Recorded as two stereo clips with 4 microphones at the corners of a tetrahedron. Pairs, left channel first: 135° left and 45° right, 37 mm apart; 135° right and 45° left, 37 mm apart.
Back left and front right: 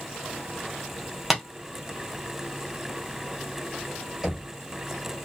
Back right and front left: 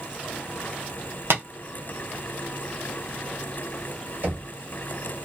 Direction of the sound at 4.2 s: 25° left.